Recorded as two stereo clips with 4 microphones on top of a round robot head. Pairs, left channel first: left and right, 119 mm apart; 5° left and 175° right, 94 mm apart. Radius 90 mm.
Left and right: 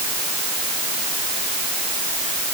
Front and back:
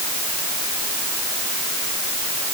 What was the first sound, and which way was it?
Only background noise.